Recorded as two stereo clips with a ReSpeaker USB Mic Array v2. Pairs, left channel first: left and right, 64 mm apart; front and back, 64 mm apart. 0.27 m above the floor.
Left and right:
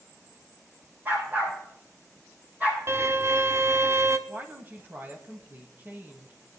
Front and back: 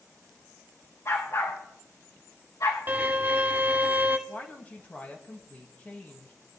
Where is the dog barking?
40° right, 5 m; by 2.8 s 25° right, 5.5 m.